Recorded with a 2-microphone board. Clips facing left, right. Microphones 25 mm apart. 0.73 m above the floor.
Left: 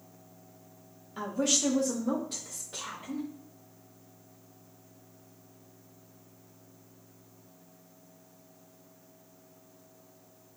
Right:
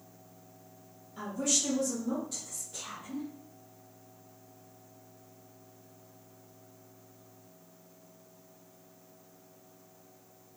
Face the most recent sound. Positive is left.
turn(degrees=70)  # may be behind; listen again after turning